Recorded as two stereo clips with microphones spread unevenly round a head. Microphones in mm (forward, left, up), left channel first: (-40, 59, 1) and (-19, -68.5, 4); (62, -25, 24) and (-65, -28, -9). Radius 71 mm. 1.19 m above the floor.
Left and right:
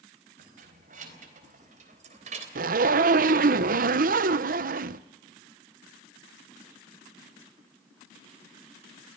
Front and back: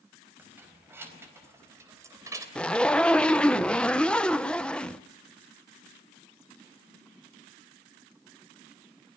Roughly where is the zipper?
Right.